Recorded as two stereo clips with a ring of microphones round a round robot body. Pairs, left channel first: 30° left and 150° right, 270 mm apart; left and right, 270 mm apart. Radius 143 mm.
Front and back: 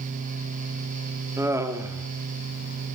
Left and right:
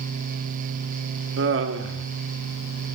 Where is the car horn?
I don't hear a car horn.